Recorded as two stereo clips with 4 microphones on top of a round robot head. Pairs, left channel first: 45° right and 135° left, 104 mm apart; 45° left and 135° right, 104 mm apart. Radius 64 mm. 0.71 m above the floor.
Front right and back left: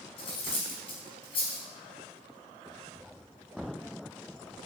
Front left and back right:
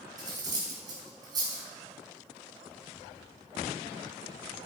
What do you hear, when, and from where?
0.2 s cutlery clinking: 85° right, 4 m